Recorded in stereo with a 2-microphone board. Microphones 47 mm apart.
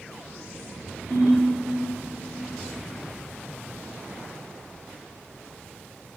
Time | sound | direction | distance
1.1 | a ringtone | 70° right (ahead or behind) | 1.2 m